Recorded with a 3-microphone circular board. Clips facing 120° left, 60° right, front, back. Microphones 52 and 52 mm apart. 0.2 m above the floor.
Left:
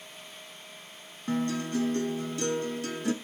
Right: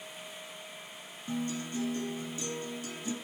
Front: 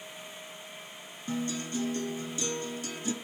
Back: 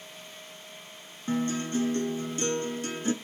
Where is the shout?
No shout in this recording.